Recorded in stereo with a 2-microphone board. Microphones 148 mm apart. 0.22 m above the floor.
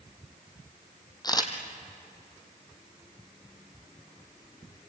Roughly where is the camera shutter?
Left.